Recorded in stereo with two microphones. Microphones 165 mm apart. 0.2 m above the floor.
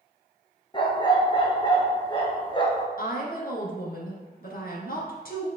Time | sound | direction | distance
0.7 | a dog barking | 30° left (ahead or behind) | 1.6 m
3.0 | a woman speaking | 65° left (ahead or behind) | 2.5 m